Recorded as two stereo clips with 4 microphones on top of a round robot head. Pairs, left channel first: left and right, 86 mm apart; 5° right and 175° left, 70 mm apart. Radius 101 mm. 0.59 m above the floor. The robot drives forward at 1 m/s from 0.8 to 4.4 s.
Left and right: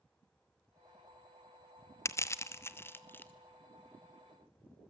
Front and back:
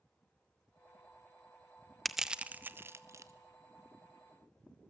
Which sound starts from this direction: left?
Crushing, at 2.0 s.